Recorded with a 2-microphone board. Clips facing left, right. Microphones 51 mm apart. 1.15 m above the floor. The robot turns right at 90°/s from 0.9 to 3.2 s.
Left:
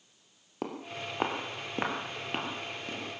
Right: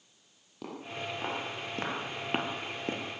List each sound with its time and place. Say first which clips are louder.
0.6 s footsteps: left 1 dB; 50° left (ahead or behind), 2.5 m; by 3.0 s 35° right (ahead or behind), 1.3 m